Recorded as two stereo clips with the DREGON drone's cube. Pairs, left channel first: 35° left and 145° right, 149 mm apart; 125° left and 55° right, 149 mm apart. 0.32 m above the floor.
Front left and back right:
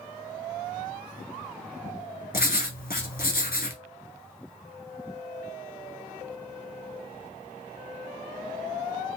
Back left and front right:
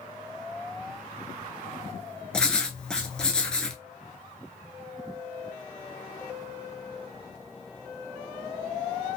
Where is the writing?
40° left, 1.0 m.